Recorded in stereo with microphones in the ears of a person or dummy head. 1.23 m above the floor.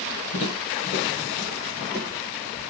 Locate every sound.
0.3 s footsteps: 45° left (ahead or behind), 1.8 m; by 2.6 s 5° left (ahead or behind), 1.5 m